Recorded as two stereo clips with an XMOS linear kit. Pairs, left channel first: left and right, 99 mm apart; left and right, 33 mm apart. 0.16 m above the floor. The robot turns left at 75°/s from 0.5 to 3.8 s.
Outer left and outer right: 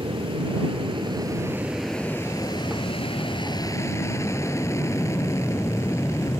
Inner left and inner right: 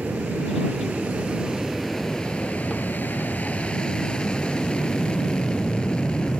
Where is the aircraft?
80° right; by 6.4 s 35° left.